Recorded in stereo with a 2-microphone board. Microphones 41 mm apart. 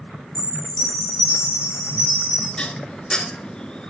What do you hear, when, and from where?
0.3 s a chime: 80° right, 4 m
2.6 s dishes clattering: 20° left (ahead or behind), 0.8 m